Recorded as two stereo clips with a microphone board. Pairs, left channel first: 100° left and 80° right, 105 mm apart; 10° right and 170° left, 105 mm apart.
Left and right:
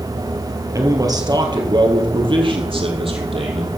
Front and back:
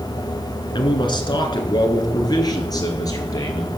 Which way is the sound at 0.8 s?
35° right.